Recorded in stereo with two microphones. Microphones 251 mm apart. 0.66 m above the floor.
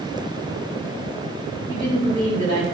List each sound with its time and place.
1.7 s a woman speaking: 50° left (ahead or behind), 5 m